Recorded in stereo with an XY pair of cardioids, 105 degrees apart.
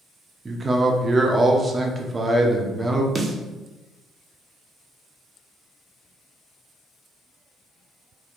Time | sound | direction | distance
0.5 | a man speaking | 25° right | 0.8 m
3.1 | a snare drum | 30° right | 0.8 m